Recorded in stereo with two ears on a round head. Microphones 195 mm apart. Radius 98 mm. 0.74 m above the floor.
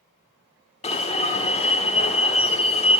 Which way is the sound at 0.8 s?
30° left (ahead or behind).